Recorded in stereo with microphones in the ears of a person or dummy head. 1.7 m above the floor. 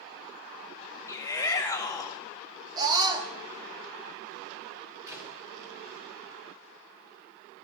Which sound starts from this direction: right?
A scream, at 2.8 s.